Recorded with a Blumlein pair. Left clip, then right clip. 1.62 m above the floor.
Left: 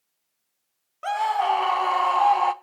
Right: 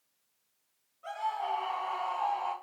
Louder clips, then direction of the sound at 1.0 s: Left 11 dB; 50° left.